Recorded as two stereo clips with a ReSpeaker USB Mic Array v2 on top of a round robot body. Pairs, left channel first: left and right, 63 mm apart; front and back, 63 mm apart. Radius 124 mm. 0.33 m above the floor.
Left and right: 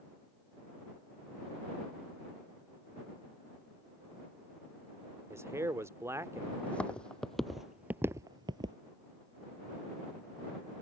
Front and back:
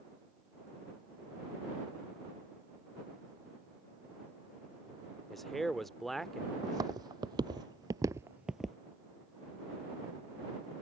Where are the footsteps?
160° left; by 8.8 s 85° right.